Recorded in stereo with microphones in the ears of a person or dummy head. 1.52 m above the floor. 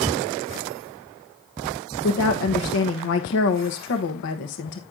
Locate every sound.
2.0 s a woman speaking: 65° left (ahead or behind), 1.2 m